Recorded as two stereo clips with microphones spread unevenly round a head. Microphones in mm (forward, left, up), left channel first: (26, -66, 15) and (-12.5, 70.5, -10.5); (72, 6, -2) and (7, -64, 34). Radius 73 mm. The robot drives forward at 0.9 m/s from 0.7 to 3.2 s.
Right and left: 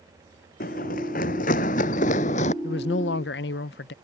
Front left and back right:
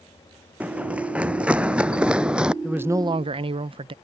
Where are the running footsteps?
70° right.